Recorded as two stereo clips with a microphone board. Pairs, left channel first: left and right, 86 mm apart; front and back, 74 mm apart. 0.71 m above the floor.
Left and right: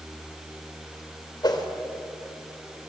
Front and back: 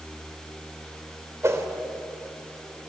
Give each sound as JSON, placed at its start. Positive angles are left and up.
{"t": 1.4, "sound": "a whoosh", "azimuth_deg": 130, "distance_m": 2.5}